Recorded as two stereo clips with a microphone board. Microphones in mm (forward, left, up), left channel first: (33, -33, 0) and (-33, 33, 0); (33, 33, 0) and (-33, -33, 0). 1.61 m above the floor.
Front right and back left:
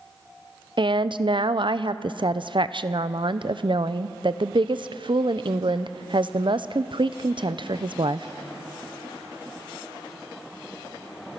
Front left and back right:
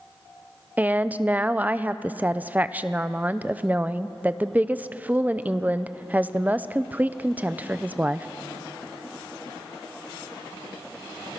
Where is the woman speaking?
155° left, 0.6 m.